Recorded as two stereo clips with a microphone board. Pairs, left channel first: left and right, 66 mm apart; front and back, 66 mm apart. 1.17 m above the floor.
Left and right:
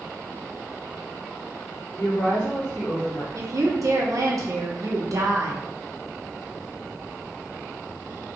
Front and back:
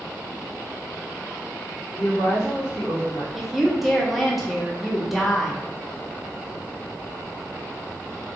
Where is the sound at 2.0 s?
25° left, 1.9 m.